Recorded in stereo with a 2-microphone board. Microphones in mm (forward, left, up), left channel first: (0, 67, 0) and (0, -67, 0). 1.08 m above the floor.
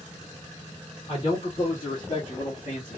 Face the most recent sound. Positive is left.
turn(degrees=75)  # may be behind; listen again after turning